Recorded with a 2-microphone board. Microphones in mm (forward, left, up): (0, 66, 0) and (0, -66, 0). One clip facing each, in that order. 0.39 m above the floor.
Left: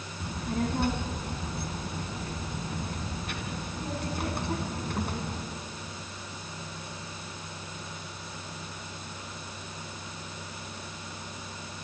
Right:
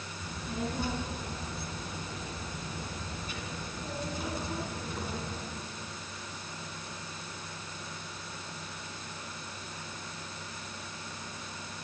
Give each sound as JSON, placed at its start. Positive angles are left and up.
{"t": 0.2, "sound": "a child speaking", "side_deg": 65, "distance_m": 3.0}